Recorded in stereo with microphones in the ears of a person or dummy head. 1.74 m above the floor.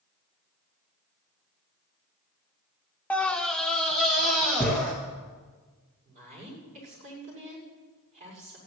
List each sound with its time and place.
3.1 s a scream: 5° left (ahead or behind), 0.5 m; by 4.9 s centre (ahead or behind), 2.5 m
6.0 s a woman speaking: 40° right (ahead or behind), 6.5 m